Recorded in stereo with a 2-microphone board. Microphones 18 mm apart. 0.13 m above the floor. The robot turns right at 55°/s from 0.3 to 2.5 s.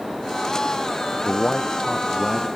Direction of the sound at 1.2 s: 105° left.